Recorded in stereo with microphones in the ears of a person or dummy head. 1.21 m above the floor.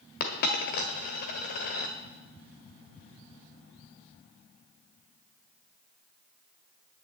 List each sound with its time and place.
0.2 s a dropped coin: 50° left (ahead or behind), 1.3 m